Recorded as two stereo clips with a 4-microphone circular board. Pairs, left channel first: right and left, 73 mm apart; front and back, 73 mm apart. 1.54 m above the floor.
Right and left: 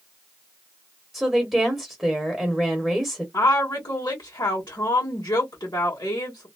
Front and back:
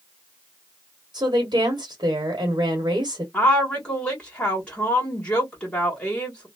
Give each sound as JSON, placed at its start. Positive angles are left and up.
{"t": 1.1, "sound": "a woman speaking", "azimuth_deg": 175, "distance_m": 1.0}
{"t": 3.3, "sound": "a woman speaking", "azimuth_deg": -75, "distance_m": 1.4}